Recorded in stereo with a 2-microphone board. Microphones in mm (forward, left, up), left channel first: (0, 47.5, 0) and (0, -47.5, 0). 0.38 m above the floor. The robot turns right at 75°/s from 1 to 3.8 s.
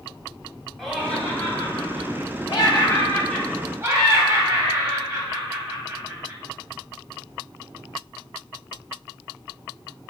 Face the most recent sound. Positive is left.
turn(degrees=-150)